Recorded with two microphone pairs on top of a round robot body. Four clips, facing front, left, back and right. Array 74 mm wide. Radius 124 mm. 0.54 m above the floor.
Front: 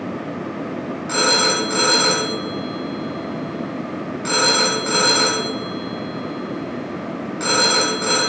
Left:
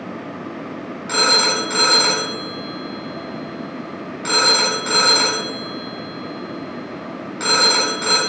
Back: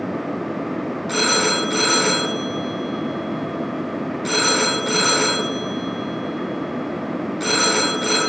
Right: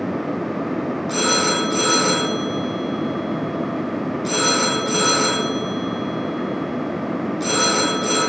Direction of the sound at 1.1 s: 75° left.